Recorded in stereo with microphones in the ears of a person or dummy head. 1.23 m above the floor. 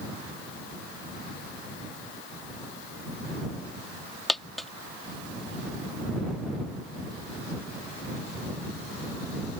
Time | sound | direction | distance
4.3 | a dropped coin | centre (ahead or behind) | ?